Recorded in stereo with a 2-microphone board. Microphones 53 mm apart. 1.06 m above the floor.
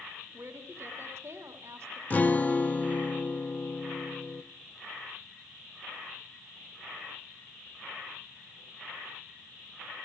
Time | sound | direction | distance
0.3 | a woman speaking | 55° right (ahead or behind) | 3 m
2.1 | a guitar | 30° left (ahead or behind) | 0.8 m